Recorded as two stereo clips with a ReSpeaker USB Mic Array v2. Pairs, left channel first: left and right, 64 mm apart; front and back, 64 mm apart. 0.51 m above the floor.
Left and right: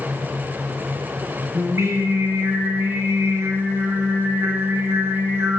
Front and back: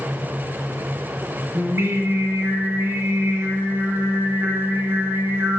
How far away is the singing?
About 1.2 m.